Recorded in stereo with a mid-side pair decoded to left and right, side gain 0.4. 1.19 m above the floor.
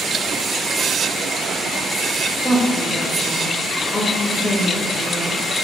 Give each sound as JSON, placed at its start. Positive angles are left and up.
{"t": 2.4, "sound": "a woman speaking", "azimuth_deg": 25, "distance_m": 1.3}